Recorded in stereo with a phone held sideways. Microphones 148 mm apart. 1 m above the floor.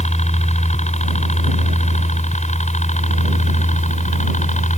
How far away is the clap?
No clap in this recording.